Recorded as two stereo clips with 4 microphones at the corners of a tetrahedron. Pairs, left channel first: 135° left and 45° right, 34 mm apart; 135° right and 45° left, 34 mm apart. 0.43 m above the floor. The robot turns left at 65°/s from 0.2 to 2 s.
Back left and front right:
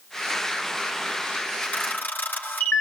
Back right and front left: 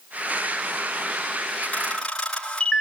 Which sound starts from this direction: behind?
A camera shutter, at 1.6 s.